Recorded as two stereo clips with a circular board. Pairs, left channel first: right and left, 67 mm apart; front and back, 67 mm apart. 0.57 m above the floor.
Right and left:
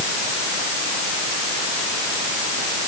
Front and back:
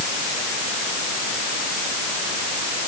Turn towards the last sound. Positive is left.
No sound to turn to.